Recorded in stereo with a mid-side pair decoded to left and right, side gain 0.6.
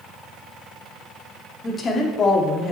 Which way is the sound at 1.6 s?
35° left.